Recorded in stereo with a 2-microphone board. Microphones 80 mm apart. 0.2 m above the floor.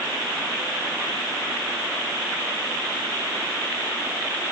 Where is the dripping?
I don't hear dripping.